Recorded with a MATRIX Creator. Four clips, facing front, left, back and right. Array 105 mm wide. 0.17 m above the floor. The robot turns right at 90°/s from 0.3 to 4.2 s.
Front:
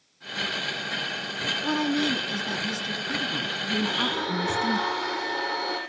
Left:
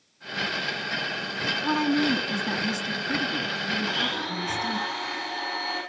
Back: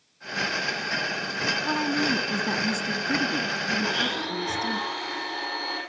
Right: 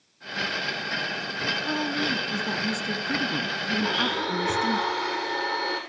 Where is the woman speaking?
95° left, 1.8 m; by 4.8 s 30° right, 1.8 m.